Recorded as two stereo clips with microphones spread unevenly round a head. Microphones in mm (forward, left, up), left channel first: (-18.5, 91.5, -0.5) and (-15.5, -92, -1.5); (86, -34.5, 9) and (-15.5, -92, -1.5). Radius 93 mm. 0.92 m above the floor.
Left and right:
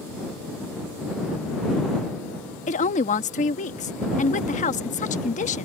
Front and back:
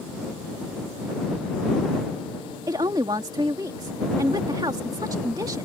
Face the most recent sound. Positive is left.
turn(degrees=140)